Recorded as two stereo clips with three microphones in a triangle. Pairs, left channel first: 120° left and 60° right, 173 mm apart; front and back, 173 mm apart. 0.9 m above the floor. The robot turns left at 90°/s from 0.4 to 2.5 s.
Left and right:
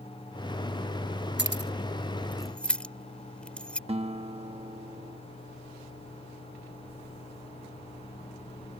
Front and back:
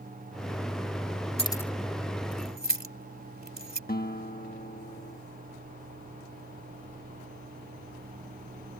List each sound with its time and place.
1.4 s keys jangling: 55° right; by 3.8 s 155° right
3.9 s a guitar: 10° right